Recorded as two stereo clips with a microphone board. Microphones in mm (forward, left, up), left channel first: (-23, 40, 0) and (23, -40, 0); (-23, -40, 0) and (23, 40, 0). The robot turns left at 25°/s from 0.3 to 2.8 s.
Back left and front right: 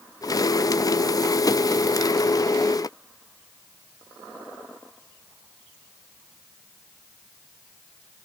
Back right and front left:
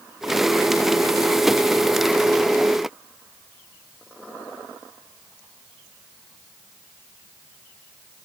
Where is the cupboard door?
No cupboard door in this recording.